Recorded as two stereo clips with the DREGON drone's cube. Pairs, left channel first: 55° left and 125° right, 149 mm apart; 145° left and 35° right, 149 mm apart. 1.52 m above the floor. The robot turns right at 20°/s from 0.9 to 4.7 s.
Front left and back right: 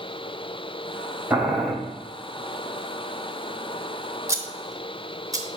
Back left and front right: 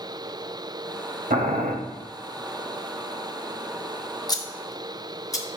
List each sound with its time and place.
1.3 s boiling: 45° right, 1.2 m; by 1.7 s 40° right, 1.2 m
4.3 s scissors: straight behind, 0.9 m; by 5.5 s 170° right, 0.9 m